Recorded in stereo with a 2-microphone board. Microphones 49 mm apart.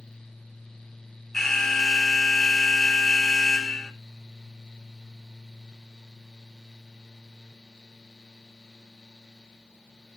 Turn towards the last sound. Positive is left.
turn(degrees=5)  # may be behind; listen again after turning